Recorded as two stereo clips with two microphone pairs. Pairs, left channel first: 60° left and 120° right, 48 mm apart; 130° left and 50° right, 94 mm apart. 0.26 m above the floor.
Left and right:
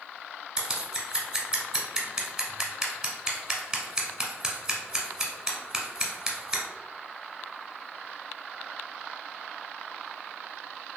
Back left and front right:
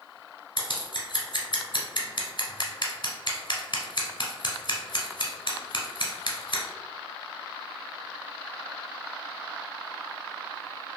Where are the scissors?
160° left, 0.8 m.